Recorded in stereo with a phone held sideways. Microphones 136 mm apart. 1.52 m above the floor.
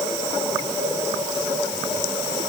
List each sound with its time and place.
Only background noise.